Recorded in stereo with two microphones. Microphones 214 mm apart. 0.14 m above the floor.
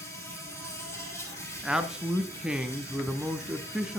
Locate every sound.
0.0 s an insect: 10° left (ahead or behind), 4.5 m
1.6 s a man speaking: 5° right (ahead or behind), 1.2 m